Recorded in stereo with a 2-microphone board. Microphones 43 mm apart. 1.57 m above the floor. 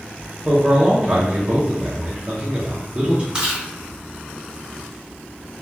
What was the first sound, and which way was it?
A man speaking, 30° right (ahead or behind).